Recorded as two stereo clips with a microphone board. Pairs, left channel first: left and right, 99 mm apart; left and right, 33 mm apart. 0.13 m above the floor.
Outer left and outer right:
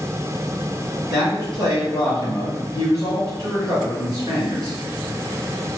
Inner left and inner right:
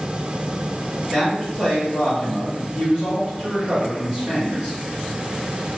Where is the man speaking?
35° right (ahead or behind), 1.8 m.